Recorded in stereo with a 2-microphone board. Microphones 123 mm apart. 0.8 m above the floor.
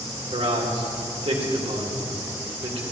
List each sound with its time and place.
0.3 s a man speaking: 55° right (ahead or behind), 2.5 m